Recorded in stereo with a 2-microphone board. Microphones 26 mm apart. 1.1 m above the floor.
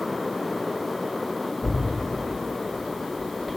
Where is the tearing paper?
55° left (ahead or behind), 2.0 m.